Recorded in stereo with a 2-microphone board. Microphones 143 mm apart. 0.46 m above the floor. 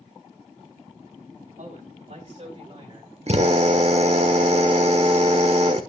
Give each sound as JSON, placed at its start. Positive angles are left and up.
{"t": 1.6, "sound": "a man speaking", "side_deg": -65, "distance_m": 3.0}
{"t": 3.3, "sound": "a drill", "side_deg": -50, "distance_m": 1.2}